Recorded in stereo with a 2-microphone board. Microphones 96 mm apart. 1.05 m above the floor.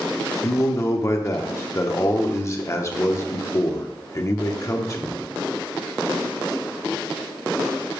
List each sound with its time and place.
0.4 s a man speaking: 35° left (ahead or behind), 0.9 m